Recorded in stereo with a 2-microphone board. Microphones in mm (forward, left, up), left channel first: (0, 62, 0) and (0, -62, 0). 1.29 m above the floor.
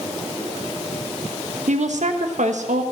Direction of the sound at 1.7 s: 75° right (ahead or behind).